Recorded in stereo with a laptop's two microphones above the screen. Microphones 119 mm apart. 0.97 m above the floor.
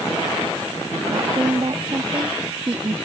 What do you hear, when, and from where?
1.1 s a woman speaking: 50° right (ahead or behind)